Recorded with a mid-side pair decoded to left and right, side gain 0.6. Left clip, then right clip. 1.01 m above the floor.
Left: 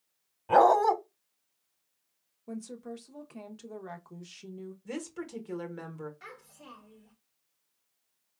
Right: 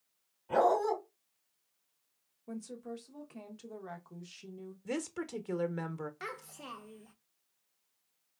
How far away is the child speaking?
About 0.7 m.